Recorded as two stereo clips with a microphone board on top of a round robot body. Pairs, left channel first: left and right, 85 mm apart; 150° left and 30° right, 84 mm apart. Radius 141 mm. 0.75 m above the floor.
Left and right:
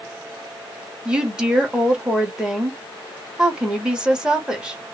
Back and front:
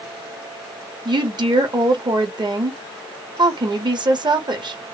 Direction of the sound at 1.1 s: 10° right.